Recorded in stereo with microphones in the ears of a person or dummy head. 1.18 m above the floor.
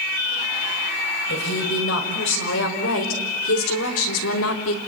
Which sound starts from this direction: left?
A woman speaking, at 1.3 s.